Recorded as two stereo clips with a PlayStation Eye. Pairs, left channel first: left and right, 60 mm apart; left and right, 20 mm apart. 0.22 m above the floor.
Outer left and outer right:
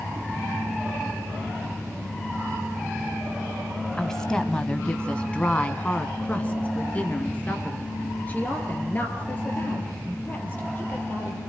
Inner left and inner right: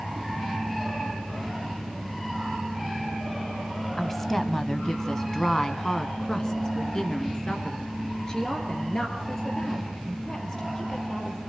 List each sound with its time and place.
4.0 s a woman speaking: 10° left (ahead or behind), 1.2 m; by 11.4 s 25° left (ahead or behind), 5.5 m